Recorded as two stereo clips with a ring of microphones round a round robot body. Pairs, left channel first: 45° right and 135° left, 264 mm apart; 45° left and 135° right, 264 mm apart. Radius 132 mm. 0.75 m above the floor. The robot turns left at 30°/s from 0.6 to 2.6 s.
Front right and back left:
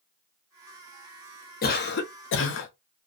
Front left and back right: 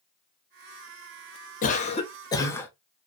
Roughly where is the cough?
Ahead.